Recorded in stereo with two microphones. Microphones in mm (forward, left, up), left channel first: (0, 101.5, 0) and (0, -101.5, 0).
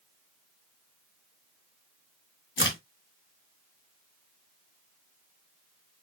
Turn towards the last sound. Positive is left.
turn(degrees=65)  # may be behind; listen again after turning